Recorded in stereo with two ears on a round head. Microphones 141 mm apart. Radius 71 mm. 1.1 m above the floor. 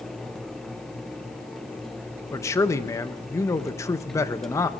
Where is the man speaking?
20° left (ahead or behind), 0.8 m.